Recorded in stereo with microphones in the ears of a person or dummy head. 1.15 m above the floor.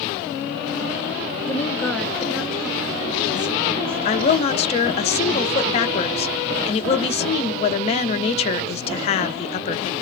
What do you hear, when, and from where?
1.4 s a woman speaking: 20° left (ahead or behind), 0.9 m; by 4.6 s 35° right (ahead or behind), 2.5 m
4.0 s a woman speaking: 45° left (ahead or behind), 0.6 m